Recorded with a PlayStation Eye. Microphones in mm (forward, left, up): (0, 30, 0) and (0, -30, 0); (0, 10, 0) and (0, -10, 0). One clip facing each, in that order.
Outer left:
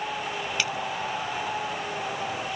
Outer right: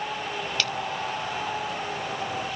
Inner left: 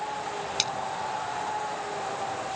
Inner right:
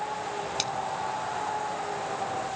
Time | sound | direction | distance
0.6 | a splash | 15° left (ahead or behind) | ?